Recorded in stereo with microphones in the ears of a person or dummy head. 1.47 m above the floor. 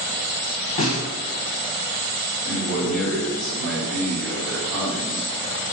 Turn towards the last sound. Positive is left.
turn(degrees=0)  # may be behind; listen again after turning